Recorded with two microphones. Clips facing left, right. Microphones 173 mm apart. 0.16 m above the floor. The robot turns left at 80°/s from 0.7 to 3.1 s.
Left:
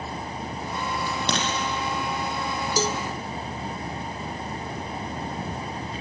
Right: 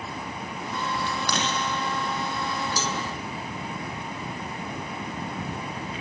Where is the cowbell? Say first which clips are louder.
Left 4 dB; 35° left (ahead or behind), 0.7 m; by 3.0 s 40° left (ahead or behind), 0.7 m.